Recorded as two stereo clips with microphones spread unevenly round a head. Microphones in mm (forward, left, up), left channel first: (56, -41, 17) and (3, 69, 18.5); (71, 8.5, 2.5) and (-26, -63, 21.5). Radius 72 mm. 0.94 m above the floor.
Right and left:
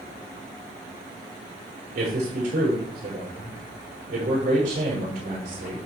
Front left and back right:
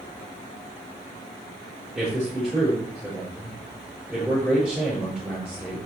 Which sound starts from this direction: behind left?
A man speaking, at 1.9 s.